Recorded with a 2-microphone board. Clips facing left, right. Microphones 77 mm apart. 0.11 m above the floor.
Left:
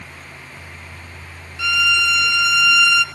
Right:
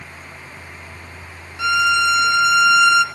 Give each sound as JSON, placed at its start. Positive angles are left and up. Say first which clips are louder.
{"t": 1.6, "sound": "a violin", "louder": "right 4 dB", "side_deg": -25, "distance_m": 1.2}